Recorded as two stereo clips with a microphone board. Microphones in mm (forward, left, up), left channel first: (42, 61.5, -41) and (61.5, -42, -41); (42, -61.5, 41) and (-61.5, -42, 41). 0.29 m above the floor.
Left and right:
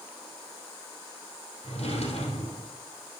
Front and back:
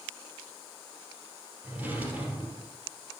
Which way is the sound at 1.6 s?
95° left.